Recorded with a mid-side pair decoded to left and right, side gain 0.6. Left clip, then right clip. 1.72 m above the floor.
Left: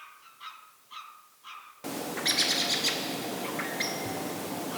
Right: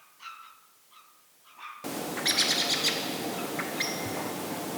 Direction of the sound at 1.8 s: 5° right.